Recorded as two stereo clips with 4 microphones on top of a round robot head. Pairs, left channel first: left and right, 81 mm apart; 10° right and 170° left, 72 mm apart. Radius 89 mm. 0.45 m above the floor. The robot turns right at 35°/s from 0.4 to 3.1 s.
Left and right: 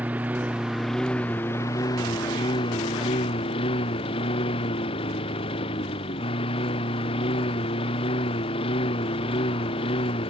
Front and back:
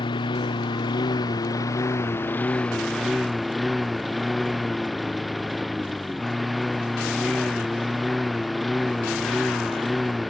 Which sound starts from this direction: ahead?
A lawn mower, at 0.0 s.